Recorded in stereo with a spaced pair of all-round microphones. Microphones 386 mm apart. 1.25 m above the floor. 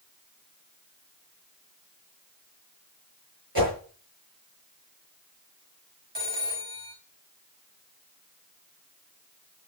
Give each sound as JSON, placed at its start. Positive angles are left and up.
{"t": 3.5, "sound": "a whoosh", "side_deg": -65, "distance_m": 6.0}
{"t": 6.2, "sound": "a phone ringing", "side_deg": -85, "distance_m": 4.5}